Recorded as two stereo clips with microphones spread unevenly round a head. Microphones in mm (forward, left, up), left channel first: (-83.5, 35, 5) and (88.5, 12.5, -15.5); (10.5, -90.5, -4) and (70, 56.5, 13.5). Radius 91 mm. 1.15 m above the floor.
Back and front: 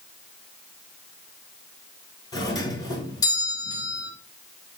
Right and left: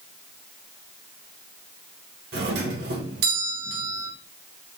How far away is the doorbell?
About 2 m.